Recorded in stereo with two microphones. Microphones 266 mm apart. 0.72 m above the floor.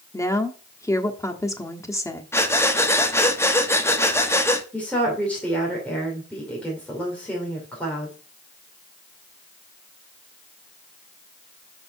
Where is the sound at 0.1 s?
10° left (ahead or behind), 1.2 m.